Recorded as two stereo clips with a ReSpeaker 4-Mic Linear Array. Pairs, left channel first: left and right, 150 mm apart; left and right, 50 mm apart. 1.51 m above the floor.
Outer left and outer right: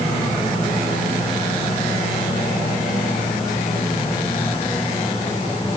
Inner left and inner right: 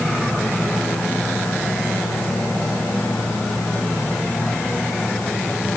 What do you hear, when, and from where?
Only background noise.